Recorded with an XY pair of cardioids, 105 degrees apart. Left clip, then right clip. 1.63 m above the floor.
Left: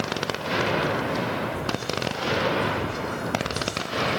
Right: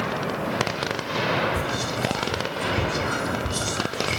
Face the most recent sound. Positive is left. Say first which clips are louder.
# right 2 dB
turn(degrees=-65)